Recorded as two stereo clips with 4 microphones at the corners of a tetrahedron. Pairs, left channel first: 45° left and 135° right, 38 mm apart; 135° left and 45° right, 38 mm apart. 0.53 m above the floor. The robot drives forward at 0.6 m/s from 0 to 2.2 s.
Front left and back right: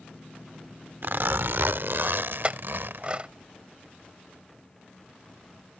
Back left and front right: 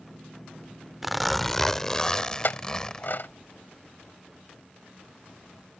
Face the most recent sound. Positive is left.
turn(degrees=165)